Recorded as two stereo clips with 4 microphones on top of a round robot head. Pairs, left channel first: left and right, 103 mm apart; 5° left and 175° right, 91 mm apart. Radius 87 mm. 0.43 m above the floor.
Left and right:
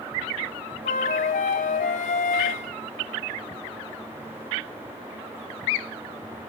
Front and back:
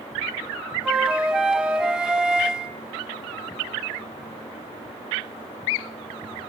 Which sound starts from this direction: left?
A flute, at 0.8 s.